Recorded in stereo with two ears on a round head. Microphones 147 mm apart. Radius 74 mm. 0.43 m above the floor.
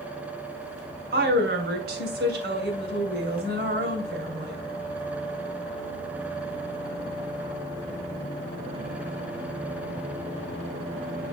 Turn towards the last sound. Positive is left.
turn(degrees=-65)  # may be behind; listen again after turning